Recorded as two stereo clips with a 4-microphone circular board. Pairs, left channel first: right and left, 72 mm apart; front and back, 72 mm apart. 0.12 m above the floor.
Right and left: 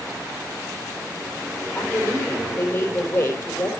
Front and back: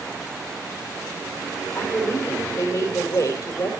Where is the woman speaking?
30° right, 3.5 m.